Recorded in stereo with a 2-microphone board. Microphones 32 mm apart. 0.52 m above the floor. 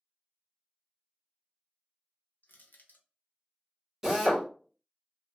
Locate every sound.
2.4 s crushing: 65° left (ahead or behind), 0.7 m
4.0 s a drill: 10° right (ahead or behind), 1.5 m